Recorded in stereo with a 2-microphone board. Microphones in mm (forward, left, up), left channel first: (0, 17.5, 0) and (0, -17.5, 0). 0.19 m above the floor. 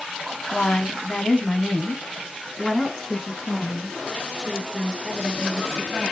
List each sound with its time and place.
0.5 s a woman speaking: 35° left (ahead or behind), 1.1 m; by 6.1 s 10° left (ahead or behind), 4 m